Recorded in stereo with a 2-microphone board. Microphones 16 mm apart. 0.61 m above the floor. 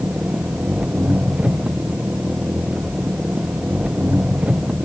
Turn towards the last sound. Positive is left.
turn(degrees=-80)